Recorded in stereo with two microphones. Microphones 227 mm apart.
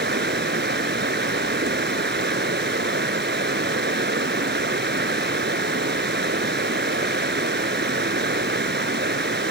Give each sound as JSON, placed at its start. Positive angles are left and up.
{"t": 0.0, "sound": "running water", "side_deg": -50, "distance_m": 1.1}